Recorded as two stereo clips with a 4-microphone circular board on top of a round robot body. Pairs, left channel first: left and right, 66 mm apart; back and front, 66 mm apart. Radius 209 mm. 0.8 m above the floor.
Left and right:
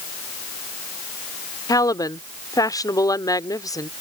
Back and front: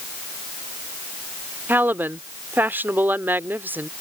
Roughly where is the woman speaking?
Ahead left.